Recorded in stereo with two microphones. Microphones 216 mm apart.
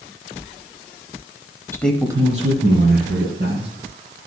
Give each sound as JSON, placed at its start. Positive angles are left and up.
{"t": 1.7, "sound": "a man speaking", "side_deg": 15, "distance_m": 1.0}